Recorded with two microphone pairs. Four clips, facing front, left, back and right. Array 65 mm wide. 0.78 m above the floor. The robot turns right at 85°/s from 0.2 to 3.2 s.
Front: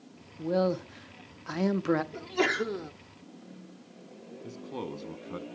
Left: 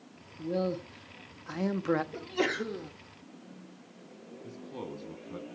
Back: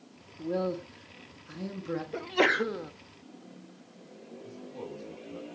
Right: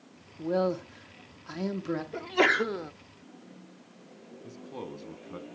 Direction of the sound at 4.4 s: 30° right.